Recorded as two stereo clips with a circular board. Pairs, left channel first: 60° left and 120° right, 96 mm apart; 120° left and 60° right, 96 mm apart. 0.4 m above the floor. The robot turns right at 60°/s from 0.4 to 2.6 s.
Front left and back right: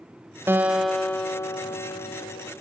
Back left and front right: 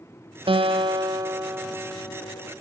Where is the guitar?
55° right, 1.3 m; by 2.5 s 65° left, 1.3 m.